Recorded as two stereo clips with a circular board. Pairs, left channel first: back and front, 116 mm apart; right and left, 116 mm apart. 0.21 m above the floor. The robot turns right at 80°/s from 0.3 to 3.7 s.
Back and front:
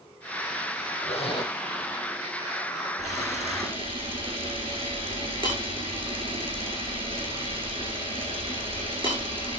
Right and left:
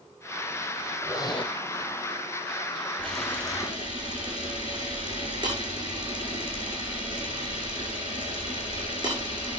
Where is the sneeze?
No sneeze in this recording.